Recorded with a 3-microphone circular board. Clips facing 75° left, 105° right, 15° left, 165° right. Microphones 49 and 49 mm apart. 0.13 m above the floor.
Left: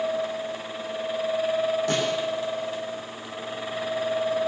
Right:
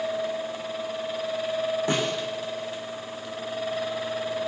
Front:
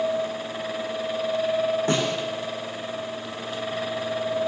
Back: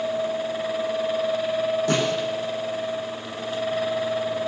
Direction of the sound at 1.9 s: 40° right.